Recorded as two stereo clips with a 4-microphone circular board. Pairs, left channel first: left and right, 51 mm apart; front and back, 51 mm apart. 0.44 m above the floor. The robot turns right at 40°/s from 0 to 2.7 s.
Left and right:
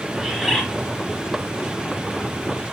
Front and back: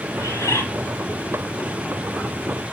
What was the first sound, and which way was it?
A bird, 5° right.